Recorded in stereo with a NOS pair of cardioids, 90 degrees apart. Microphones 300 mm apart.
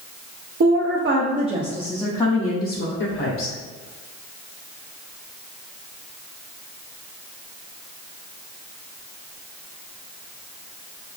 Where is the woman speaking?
45° right, 0.9 m; by 3.5 s 55° left, 1.0 m.